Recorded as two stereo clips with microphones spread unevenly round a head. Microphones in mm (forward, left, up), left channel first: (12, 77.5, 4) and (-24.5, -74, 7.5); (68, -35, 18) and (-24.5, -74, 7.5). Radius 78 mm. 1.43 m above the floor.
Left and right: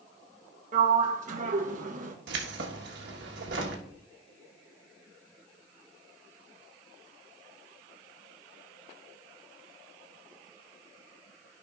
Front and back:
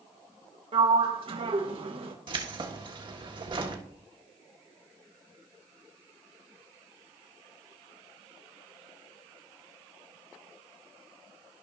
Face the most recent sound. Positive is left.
turn(degrees=-120)